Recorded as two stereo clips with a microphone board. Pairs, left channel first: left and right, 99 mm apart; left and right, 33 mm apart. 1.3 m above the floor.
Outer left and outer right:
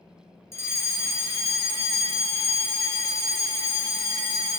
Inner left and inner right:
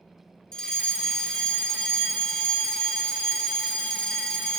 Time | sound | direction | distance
0.5 | a fire alarm | 25° left (ahead or behind) | 1.1 m